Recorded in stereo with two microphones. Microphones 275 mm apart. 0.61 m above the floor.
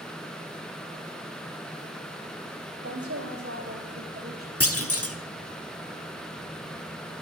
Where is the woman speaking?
55° right (ahead or behind), 2 m; by 4.5 s 30° right (ahead or behind), 2.5 m.